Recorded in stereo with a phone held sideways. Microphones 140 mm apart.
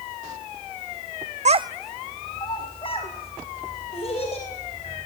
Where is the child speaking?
55° right (ahead or behind), 0.5 m; by 5.0 s 50° left (ahead or behind), 4.5 m.